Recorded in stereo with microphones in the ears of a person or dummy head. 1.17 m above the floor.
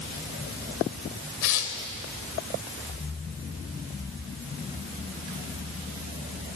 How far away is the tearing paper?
About 3 m.